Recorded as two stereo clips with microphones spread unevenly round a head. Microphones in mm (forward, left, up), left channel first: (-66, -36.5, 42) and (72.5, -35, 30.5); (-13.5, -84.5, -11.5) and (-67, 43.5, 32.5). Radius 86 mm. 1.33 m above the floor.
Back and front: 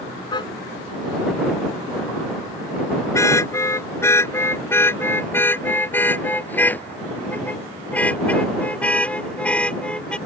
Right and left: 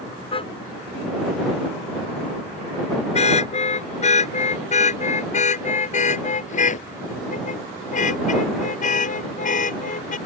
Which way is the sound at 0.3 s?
120° right.